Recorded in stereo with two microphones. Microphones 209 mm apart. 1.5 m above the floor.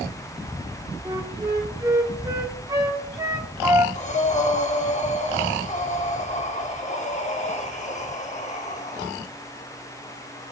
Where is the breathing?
35° left (ahead or behind), 0.7 m.